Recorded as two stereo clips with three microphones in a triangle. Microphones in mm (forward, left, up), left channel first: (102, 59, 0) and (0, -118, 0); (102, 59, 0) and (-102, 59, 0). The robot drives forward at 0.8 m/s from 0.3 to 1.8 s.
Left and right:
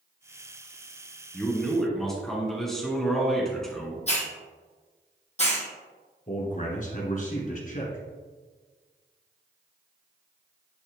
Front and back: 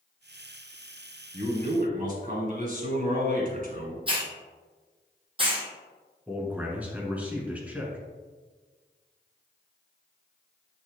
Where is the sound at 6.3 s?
100° left, 1.8 m.